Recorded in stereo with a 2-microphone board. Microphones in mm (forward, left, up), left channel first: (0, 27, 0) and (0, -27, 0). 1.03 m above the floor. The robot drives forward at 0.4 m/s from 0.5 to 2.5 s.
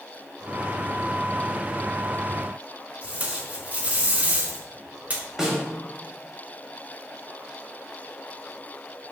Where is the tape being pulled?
30° right (ahead or behind), 3.5 m.